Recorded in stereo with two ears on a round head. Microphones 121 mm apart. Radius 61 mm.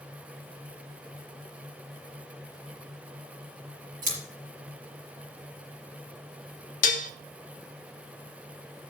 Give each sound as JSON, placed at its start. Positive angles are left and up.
{"t": 4.0, "sound": "scissors", "side_deg": -70, "distance_m": 5.5}
{"t": 6.8, "sound": "dishes clattering", "side_deg": 60, "distance_m": 0.6}